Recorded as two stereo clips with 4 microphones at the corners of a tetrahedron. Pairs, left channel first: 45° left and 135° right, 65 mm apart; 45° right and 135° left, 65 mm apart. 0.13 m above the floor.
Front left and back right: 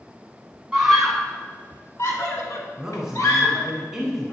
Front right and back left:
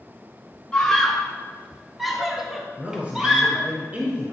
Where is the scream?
75° right, 1.0 m; by 3.7 s 60° left, 2.5 m.